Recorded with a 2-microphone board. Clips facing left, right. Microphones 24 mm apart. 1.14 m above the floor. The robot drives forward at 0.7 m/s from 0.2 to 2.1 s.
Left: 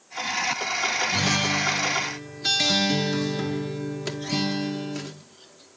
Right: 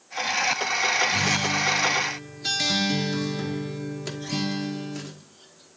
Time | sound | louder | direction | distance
1.1 | a guitar | even | 30° left (ahead or behind) | 0.6 m